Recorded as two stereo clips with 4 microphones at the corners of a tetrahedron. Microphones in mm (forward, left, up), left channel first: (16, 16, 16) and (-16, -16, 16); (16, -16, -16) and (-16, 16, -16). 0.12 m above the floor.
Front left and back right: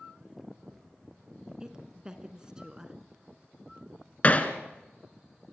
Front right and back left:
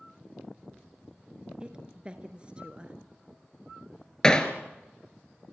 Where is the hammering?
15° left, 1.7 m.